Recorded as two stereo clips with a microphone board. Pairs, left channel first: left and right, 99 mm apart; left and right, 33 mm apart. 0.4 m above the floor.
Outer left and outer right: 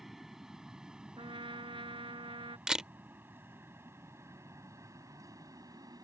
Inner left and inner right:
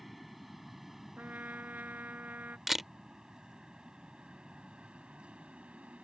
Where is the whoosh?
No whoosh in this recording.